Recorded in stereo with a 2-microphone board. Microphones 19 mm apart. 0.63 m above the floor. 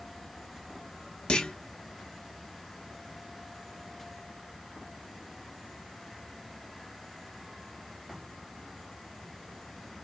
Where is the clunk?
55° left (ahead or behind), 0.8 m.